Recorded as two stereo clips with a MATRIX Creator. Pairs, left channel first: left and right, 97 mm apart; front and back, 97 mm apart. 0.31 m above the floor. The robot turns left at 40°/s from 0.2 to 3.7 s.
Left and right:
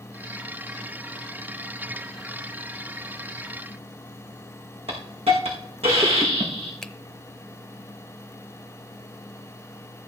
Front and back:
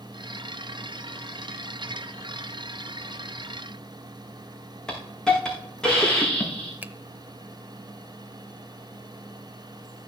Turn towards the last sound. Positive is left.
turn(degrees=160)